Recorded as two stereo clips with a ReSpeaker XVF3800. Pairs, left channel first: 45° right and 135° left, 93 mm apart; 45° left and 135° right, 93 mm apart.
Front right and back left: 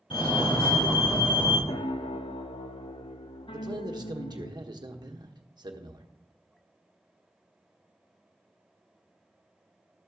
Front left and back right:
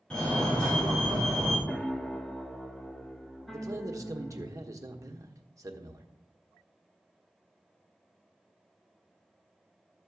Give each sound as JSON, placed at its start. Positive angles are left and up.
{"t": 0.1, "sound": "a fire alarm", "azimuth_deg": -35, "distance_m": 5.5}
{"t": 1.7, "sound": "a piano", "azimuth_deg": -40, "distance_m": 0.7}
{"t": 3.5, "sound": "a man speaking", "azimuth_deg": 170, "distance_m": 1.3}